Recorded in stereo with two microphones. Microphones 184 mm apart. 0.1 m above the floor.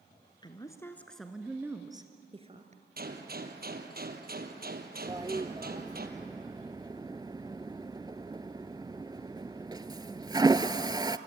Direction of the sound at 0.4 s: 25° left (ahead or behind).